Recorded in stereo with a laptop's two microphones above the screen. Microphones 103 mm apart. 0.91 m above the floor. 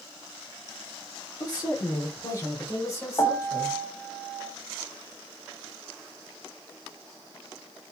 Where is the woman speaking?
40° left (ahead or behind), 2.5 m; by 3.8 s 30° left (ahead or behind), 4.5 m.